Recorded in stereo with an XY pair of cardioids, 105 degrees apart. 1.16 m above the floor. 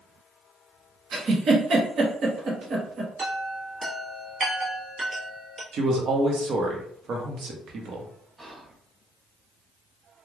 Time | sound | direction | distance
1.1 | a giggle | 50° right | 0.9 m
3.2 | a chime | 30° right | 1.3 m
5.7 | a man speaking | 60° right | 0.9 m
8.4 | whispering | 20° right | 1.1 m